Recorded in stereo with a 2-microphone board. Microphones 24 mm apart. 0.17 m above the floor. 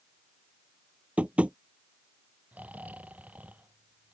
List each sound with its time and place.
1.2 s tapping: 55° right (ahead or behind)
2.5 s snoring: 85° right